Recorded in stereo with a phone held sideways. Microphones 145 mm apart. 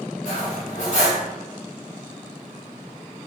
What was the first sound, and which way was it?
Cutlery clinking, 55° left (ahead or behind).